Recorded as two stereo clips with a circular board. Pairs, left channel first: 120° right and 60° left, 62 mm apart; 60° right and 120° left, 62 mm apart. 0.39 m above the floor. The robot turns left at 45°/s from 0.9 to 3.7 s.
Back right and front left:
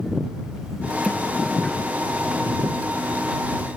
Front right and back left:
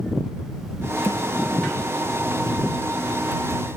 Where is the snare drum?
50° right; by 1.2 s 60° right.